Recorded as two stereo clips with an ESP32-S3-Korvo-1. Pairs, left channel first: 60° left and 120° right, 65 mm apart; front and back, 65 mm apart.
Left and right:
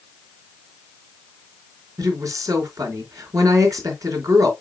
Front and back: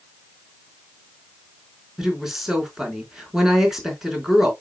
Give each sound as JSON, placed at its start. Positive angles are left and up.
{"t": 2.0, "sound": "a woman speaking", "azimuth_deg": -95, "distance_m": 4.0}